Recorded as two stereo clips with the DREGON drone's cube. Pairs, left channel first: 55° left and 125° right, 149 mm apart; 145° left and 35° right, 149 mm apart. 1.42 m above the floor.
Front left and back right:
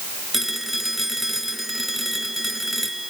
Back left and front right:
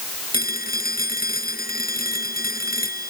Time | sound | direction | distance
0.3 | a phone ringing | 150° left | ?